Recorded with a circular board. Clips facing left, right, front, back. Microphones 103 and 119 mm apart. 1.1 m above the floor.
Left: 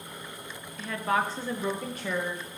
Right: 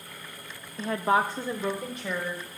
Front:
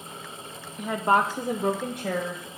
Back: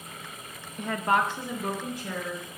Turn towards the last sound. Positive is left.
turn(degrees=10)